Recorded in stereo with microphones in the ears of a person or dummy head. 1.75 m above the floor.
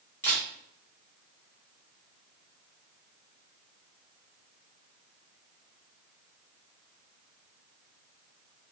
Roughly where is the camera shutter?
Centre.